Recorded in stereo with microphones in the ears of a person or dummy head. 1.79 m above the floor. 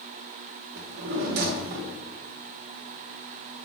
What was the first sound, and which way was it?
A drawer, 55° right (ahead or behind).